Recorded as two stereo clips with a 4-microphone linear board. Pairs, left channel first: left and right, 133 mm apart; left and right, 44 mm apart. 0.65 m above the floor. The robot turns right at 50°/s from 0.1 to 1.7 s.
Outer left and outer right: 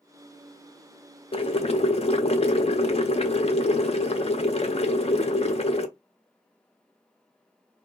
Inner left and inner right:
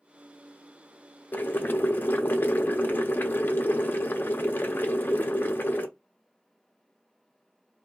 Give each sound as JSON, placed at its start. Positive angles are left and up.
{"t": 1.3, "sound": "boiling", "side_deg": 45, "distance_m": 0.5}